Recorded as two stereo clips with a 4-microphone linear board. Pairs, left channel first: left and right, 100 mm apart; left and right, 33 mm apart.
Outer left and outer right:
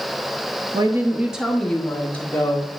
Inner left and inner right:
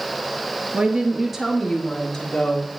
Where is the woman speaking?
45° right (ahead or behind), 0.6 m; by 2.7 s 20° left (ahead or behind), 1.9 m.